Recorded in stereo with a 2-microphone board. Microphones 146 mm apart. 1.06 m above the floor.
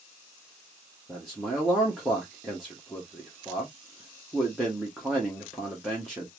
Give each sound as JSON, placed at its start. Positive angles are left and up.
{"t": 1.1, "sound": "a man speaking", "side_deg": 0, "distance_m": 1.3}